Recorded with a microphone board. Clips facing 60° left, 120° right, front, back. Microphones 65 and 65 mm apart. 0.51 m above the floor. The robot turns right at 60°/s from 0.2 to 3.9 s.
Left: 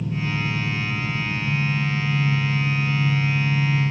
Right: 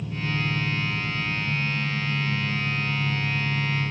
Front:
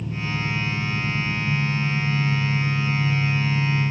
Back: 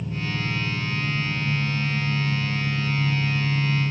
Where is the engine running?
40° left, 2 m; by 3.9 s 100° right, 2 m.